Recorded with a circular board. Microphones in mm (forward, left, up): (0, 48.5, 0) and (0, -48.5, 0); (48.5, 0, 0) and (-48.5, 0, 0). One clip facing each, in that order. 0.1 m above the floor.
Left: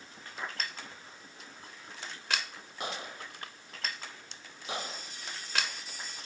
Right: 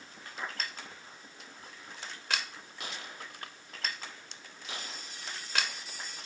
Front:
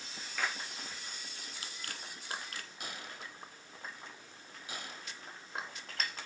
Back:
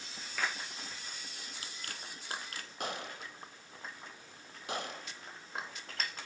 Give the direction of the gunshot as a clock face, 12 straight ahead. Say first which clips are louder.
Left 5 dB, back 9 dB; 7 o'clock.